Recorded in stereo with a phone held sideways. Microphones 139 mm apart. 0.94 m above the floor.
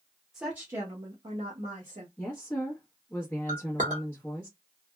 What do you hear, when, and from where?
0.3 s a woman speaking: 5° right (ahead or behind), 0.9 m; by 2.1 s 60° right (ahead or behind), 1.1 m
2.2 s a woman speaking: 15° left (ahead or behind), 1.0 m
3.5 s a clink: 65° right (ahead or behind), 1.1 m